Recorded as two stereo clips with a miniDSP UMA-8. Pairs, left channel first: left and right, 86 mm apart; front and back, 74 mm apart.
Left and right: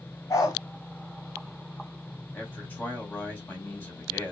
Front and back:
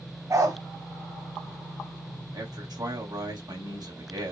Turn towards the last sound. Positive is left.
turn(degrees=155)